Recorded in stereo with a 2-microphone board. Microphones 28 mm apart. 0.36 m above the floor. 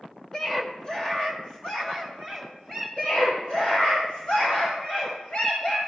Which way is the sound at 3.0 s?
40° left (ahead or behind).